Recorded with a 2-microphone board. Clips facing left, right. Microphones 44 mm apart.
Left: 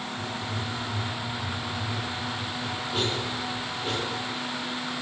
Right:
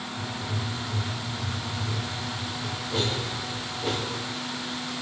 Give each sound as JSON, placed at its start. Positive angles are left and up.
{"t": 0.2, "sound": "writing", "side_deg": -90, "distance_m": 3.0}